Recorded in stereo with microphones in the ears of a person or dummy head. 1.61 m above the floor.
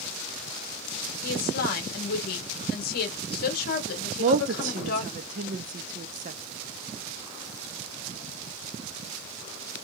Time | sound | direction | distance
1.2 | a woman speaking | 60° left (ahead or behind) | 1.8 m
4.2 | a woman speaking | 55° right (ahead or behind) | 0.7 m